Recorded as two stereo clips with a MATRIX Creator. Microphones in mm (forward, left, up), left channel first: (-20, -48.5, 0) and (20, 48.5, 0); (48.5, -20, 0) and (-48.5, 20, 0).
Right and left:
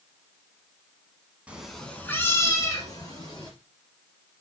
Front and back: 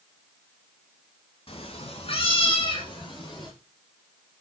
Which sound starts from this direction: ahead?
A cat meowing, at 1.5 s.